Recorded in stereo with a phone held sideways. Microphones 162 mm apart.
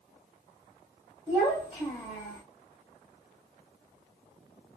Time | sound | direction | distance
1.3 | a child speaking | 30° right (ahead or behind) | 1.8 m